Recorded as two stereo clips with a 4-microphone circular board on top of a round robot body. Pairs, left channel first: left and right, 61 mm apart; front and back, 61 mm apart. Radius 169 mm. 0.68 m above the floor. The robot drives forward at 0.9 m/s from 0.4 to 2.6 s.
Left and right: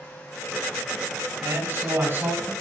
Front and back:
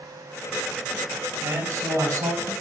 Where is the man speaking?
140° right, 5 m; by 2.5 s 145° right, 5.5 m.